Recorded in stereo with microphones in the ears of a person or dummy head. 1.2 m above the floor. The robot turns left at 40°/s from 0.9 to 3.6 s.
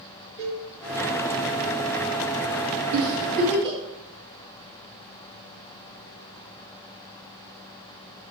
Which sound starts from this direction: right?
A giggle, at 2.9 s.